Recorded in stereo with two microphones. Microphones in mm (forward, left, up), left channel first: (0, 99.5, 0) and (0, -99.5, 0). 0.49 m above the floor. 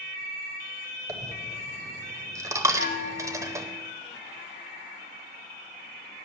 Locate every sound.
1.1 s a dropped coin: 15° right (ahead or behind), 0.8 m
2.8 s a bell: 70° left (ahead or behind), 5.5 m